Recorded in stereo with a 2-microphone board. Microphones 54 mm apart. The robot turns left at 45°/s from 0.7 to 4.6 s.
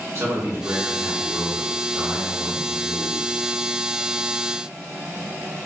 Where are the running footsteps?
I don't hear running footsteps.